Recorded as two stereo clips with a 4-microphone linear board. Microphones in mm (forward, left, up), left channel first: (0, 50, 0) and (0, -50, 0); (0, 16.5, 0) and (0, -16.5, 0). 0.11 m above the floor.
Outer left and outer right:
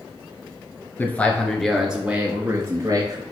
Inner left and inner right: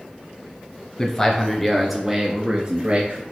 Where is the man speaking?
20° left (ahead or behind), 1.9 m; by 3.2 s 40° right (ahead or behind), 2 m.